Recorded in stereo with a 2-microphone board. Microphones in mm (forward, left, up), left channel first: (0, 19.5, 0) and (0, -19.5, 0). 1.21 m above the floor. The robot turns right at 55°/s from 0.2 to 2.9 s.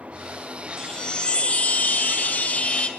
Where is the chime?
20° left, 0.5 m; by 2.9 s 135° left, 0.5 m.